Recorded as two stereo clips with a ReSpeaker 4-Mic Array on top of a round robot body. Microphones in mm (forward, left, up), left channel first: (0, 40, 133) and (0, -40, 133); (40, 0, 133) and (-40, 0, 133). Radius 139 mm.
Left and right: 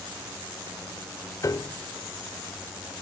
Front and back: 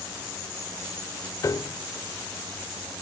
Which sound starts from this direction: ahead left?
A piano, at 1.4 s.